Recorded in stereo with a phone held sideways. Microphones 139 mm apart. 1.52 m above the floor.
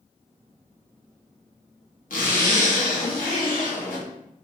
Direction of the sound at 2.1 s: 80° left.